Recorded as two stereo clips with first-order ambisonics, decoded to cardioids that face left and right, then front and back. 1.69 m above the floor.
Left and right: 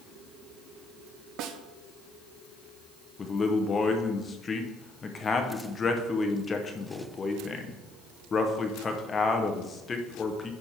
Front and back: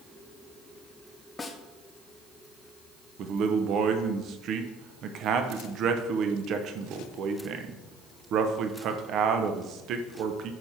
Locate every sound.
1.4 s a snare drum: 75° right, 0.7 m
3.2 s a man speaking: 155° left, 0.8 m